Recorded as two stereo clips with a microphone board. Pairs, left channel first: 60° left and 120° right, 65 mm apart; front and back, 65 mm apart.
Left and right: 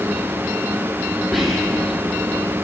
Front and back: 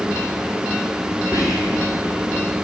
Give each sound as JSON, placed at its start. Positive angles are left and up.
{"t": 1.3, "sound": "whispering", "azimuth_deg": -25, "distance_m": 6.5}